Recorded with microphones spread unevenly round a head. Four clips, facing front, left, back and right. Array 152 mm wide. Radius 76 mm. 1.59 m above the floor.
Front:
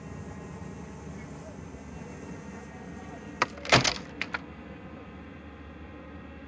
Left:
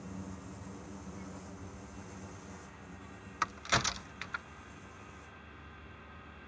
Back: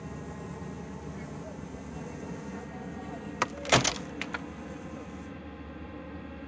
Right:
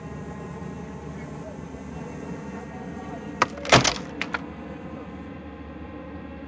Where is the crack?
90° right.